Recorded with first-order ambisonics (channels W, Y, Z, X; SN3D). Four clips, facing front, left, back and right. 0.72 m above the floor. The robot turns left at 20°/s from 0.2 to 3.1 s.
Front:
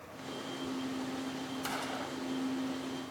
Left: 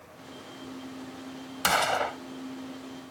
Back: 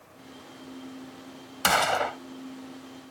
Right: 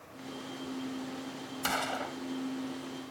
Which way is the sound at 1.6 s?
150° left.